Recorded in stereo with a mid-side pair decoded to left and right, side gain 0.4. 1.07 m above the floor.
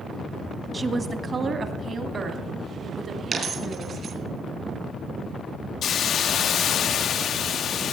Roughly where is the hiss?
Ahead left.